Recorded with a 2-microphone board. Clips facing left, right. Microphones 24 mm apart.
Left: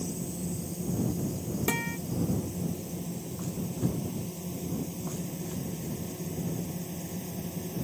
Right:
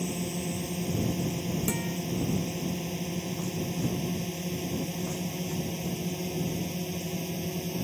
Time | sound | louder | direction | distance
0.0 | a drone | right 3 dB | 55° right (ahead or behind) | ?
1.7 | a guitar | left 1 dB | 30° left (ahead or behind) | ?